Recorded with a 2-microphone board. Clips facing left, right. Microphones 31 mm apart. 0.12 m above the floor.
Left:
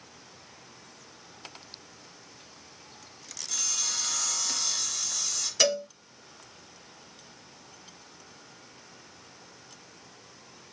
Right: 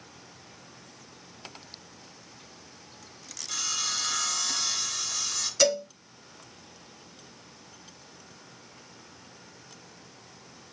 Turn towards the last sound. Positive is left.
turn(degrees=20)  # may be behind; listen again after turning